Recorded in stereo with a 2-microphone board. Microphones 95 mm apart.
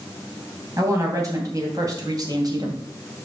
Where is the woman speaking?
35° right (ahead or behind), 3 m; by 2.8 s 45° right (ahead or behind), 2 m.